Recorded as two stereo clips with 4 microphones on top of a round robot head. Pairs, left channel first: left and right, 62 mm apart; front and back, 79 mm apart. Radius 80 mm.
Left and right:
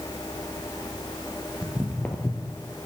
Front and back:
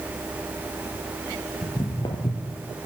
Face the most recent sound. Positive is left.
turn(degrees=40)